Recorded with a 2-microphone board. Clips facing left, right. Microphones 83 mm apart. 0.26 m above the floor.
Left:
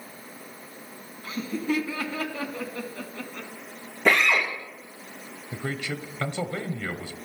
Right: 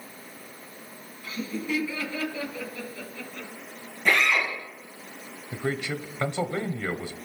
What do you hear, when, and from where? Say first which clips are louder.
1.2 s laughter: left 3 dB; 40° left (ahead or behind), 2 m; by 3.5 s 60° left (ahead or behind), 2 m
4.0 s a drill: left 2 dB; 85° left, 7 m
5.5 s a man speaking: right 3 dB; 20° right (ahead or behind), 0.9 m